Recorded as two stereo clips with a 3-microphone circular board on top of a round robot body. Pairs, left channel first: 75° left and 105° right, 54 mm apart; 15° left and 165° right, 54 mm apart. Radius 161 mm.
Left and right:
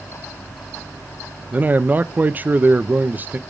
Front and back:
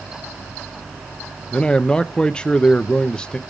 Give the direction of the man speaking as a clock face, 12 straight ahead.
2 o'clock.